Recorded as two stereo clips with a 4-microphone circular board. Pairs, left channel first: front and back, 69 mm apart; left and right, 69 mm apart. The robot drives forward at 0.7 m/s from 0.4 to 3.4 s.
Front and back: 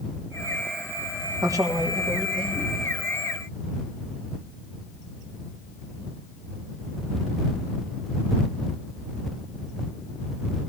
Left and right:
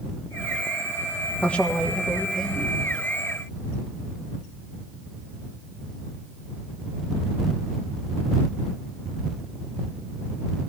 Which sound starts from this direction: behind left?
A man speaking, at 1.4 s.